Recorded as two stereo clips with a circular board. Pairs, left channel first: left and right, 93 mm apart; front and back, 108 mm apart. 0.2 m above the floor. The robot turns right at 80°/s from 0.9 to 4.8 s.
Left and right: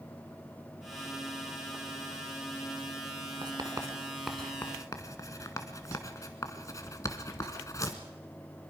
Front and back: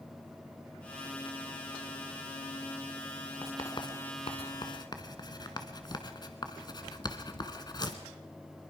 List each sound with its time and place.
3.4 s writing: 70° right, 1.6 m; by 8.0 s 40° left, 1.6 m